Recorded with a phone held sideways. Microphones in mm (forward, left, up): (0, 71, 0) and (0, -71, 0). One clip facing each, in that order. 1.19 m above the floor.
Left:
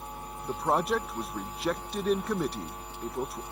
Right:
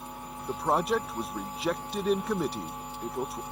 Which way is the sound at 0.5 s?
5° right (ahead or behind).